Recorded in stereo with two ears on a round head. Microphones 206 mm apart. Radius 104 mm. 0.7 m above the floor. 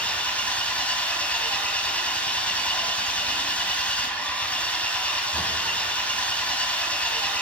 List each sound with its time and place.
0.0 s an engine running: 5° left (ahead or behind), 2.5 m